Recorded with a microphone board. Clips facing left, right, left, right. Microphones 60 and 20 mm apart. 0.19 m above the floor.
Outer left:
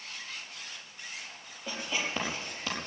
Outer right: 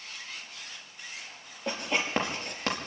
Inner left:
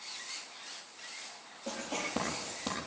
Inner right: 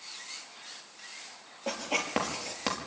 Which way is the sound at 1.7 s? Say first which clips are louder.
Outer right 4 dB, inner right 5 dB; 65° right (ahead or behind).